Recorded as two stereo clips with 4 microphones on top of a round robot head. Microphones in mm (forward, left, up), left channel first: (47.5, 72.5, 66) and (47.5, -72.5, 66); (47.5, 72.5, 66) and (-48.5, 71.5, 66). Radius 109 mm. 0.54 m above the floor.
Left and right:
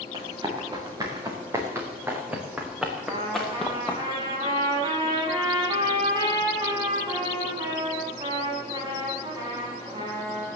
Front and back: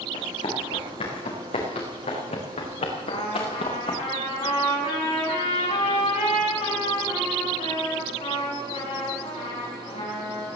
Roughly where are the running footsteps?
Ahead right.